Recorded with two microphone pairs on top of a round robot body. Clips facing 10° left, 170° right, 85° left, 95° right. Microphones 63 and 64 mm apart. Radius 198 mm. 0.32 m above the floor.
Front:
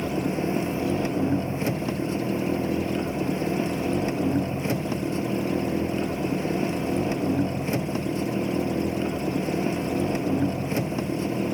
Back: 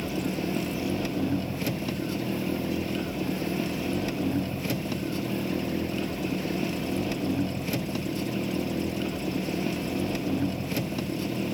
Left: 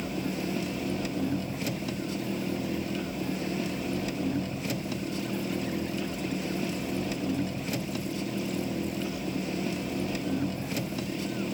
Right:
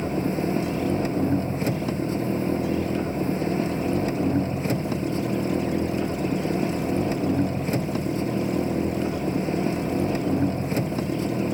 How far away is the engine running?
About 0.7 m.